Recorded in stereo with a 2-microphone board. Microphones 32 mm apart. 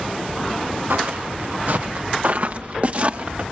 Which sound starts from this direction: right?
Footsteps, at 0.9 s.